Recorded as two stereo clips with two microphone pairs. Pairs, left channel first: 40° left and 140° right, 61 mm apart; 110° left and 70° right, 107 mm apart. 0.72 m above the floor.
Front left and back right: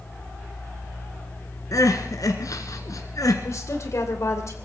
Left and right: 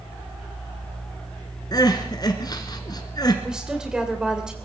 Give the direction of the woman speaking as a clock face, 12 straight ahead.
12 o'clock.